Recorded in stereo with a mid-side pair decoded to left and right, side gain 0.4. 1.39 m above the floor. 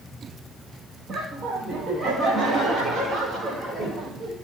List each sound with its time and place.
1.1 s laughter: 65° right, 2.5 m; by 4.3 s 60° right, 6 m